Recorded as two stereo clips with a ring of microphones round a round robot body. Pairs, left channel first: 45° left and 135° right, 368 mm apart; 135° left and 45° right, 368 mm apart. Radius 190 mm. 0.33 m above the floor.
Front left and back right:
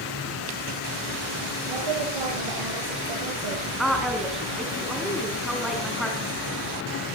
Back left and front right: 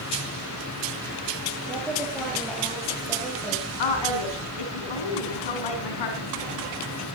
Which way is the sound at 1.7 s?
135° right.